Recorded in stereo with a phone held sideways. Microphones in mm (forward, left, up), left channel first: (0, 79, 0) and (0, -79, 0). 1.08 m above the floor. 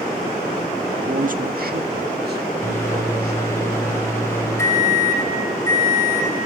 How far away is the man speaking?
About 1.4 m.